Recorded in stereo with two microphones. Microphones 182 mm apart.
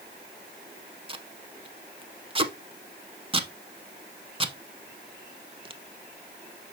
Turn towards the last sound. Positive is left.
turn(degrees=-30)  # may be behind; listen again after turning